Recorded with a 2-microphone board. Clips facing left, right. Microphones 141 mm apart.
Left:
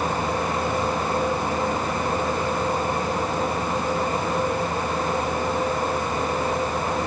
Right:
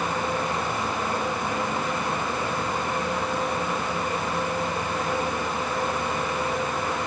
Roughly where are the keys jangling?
I don't hear keys jangling.